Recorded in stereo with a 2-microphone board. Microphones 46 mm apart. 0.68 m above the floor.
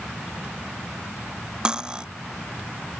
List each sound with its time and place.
1.6 s cutlery clinking: 20° right (ahead or behind)